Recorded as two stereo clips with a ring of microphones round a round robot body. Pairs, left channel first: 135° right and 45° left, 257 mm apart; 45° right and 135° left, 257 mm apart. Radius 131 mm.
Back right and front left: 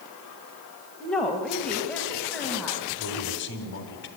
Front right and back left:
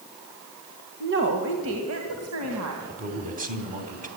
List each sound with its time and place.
1.0 s a woman speaking: 140° left, 1.8 m
2.9 s a man speaking: 170° right, 3 m